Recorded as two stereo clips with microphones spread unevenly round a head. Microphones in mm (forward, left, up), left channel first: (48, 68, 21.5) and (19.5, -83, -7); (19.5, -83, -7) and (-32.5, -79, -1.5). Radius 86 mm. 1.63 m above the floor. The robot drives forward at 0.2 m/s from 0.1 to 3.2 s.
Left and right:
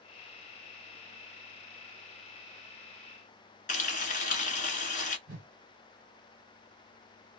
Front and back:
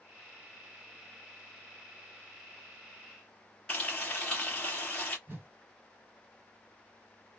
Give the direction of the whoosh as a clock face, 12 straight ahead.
5 o'clock.